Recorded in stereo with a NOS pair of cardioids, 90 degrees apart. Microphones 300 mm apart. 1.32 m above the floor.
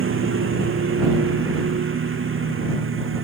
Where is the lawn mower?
45° right.